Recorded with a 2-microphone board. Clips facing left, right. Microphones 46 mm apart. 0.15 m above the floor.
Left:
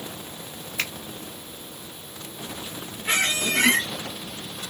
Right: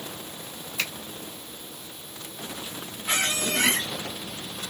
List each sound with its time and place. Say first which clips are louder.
0.8 s a finger snap: left 1 dB; 55° left (ahead or behind), 2.5 m
3.0 s a squeak: left 3 dB; 50° left (ahead or behind), 0.8 m